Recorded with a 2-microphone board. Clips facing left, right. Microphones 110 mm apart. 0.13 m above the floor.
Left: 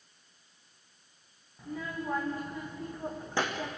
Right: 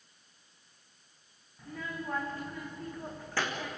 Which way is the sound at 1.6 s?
10° left (ahead or behind).